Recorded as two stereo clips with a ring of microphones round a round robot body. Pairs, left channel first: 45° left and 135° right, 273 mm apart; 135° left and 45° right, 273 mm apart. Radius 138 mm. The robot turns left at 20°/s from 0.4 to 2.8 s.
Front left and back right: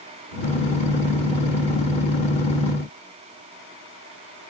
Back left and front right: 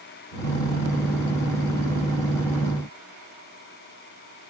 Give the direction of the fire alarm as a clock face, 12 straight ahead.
I don't hear a fire alarm.